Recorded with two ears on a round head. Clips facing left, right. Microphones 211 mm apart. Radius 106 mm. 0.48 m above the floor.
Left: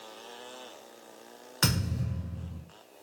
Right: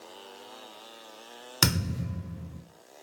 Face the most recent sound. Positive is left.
turn(degrees=-55)  # may be behind; listen again after turning